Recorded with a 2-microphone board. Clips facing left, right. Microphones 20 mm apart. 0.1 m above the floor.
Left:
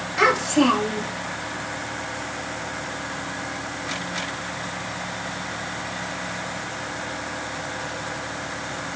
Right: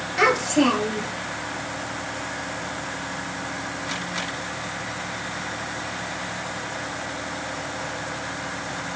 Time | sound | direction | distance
0.2 | a child speaking | centre (ahead or behind) | 1.2 m